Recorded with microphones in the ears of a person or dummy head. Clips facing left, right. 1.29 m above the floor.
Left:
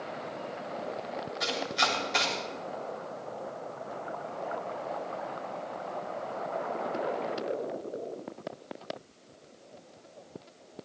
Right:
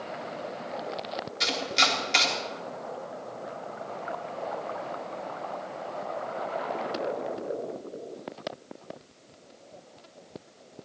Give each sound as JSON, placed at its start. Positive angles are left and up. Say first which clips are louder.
{"t": 1.4, "sound": "chopping", "louder": "right 2 dB", "side_deg": -35, "distance_m": 3.5}